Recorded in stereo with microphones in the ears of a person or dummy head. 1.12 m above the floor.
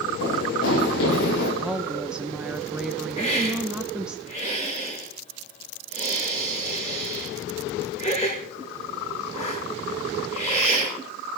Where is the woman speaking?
Centre (ahead or behind), 0.6 m.